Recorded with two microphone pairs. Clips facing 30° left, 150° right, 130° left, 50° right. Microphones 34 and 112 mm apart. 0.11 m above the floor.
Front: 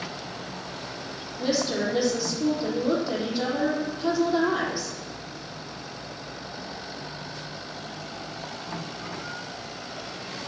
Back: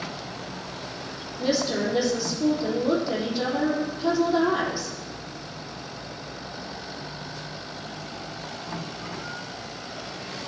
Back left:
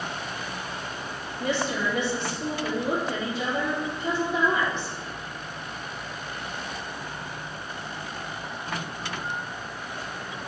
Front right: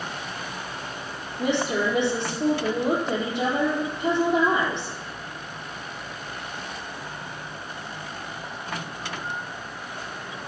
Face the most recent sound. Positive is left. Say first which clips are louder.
# back 1 dB, front right 3 dB
turn(degrees=-60)